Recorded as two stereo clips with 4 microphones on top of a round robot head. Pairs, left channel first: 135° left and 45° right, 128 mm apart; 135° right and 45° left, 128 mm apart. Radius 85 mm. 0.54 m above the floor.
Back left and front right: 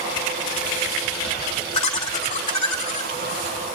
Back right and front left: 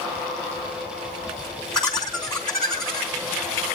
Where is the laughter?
145° left, 2 m.